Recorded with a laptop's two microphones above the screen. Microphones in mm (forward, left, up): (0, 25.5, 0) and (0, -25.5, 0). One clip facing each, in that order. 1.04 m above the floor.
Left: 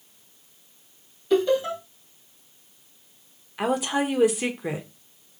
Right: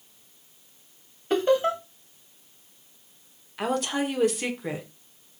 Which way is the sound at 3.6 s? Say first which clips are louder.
Left 2 dB; 10° left (ahead or behind).